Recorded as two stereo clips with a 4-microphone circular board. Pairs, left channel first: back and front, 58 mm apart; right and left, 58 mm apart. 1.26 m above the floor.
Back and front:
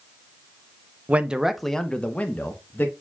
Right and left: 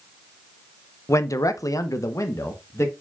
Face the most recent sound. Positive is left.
turn(degrees=-130)